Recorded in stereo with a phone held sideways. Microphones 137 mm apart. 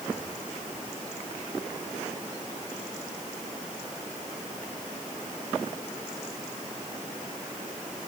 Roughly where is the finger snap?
I don't hear a finger snap.